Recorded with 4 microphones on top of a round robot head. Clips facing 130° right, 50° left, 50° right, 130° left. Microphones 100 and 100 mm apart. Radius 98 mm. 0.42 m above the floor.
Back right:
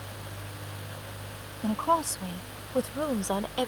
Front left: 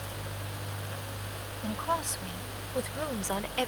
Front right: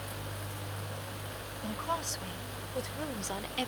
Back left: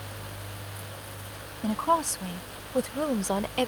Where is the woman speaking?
Straight behind; by 3.7 s 155° left.